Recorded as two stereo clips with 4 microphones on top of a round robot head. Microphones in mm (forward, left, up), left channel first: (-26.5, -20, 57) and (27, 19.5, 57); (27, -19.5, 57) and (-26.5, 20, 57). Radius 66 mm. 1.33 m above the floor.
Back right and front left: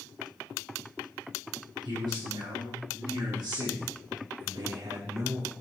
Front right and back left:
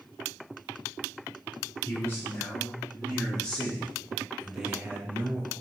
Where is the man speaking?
25° left, 4 m; by 5.5 s 95° left, 1.6 m.